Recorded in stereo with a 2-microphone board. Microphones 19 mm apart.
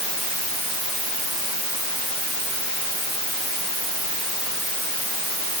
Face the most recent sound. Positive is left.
No sound to turn to.